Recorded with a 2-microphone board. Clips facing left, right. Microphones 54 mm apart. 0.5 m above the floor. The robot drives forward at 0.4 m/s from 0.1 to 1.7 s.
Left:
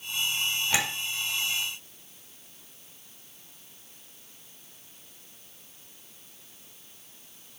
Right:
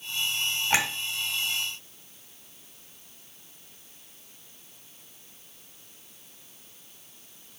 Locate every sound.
0.7 s a clink: 40° right (ahead or behind), 2 m